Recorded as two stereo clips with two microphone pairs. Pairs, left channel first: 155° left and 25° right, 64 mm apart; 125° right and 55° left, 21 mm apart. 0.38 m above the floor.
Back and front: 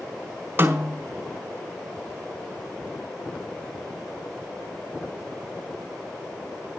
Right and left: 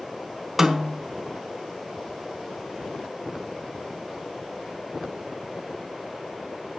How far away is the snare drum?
About 1.6 m.